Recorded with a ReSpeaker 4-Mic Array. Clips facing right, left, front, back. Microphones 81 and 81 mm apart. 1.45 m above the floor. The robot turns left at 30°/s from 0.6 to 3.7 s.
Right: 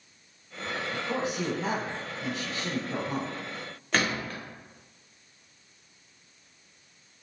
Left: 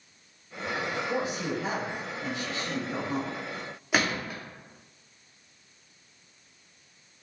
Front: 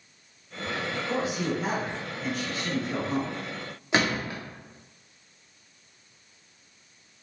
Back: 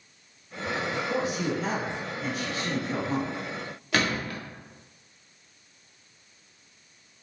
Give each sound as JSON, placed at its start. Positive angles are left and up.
{"t": 0.9, "sound": "a man speaking", "azimuth_deg": -60, "distance_m": 1.4}
{"t": 3.9, "sound": "a gunshot", "azimuth_deg": 25, "distance_m": 0.6}